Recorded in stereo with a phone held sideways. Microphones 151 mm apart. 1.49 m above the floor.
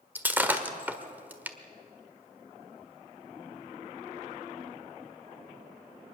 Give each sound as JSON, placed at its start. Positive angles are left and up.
{"t": 0.1, "sound": "breaking glass", "side_deg": -10, "distance_m": 1.4}